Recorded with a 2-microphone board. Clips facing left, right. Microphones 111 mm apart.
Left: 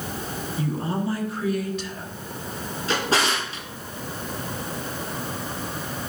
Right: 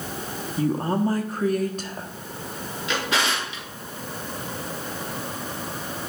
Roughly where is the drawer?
Left.